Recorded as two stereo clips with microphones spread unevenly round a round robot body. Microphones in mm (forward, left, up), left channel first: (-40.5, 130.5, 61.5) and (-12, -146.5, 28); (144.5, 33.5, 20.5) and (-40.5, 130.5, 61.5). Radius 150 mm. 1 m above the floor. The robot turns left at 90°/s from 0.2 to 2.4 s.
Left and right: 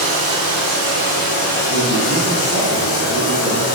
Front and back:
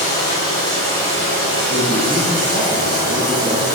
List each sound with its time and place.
0.0 s running water: 65° right, 1.3 m; by 3.8 s 95° left, 1.3 m
1.7 s a man speaking: 125° left, 1.3 m; by 3.7 s 60° left, 1.3 m